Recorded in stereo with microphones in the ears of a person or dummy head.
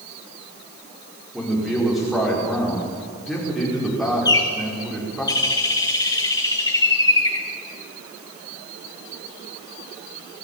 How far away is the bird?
About 1.0 m.